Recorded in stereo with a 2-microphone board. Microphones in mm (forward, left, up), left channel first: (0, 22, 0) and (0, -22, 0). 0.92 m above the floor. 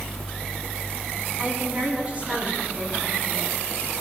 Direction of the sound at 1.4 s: 35° right (ahead or behind).